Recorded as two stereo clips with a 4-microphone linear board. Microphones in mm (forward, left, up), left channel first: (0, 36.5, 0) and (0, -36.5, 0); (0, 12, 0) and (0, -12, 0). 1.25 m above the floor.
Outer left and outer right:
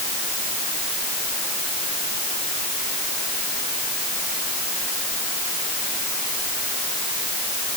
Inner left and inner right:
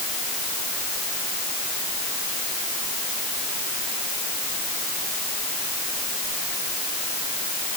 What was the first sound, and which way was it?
Only background noise.